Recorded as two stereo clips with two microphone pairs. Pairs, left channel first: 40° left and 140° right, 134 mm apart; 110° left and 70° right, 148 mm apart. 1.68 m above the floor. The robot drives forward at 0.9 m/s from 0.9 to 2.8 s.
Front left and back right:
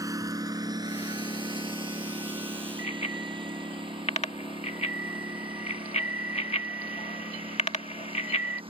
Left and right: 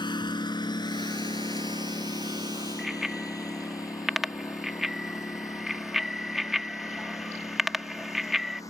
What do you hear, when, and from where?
0.0 s a lawn mower: 160° left; by 8.7 s 175° left
2.8 s a bicycle bell: 15° left